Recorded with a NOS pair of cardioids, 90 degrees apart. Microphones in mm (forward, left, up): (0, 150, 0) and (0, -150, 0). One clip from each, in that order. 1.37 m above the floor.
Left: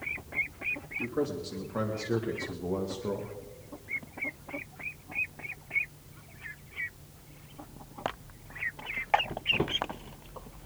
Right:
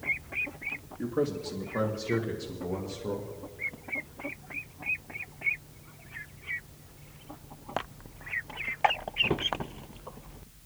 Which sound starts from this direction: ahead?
A man speaking, at 1.0 s.